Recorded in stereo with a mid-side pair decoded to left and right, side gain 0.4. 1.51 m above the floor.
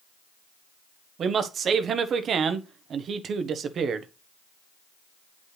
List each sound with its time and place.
1.2 s a man speaking: 65° right, 1.2 m